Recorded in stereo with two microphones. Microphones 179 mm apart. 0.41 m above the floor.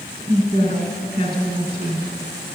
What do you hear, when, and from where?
0.3 s a woman speaking: 55° right (ahead or behind), 3.5 m